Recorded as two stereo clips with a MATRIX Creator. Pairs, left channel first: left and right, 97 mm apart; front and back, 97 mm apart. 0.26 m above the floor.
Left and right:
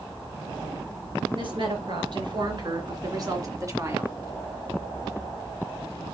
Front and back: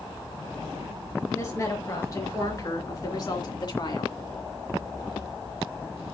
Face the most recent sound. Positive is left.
turn(degrees=-30)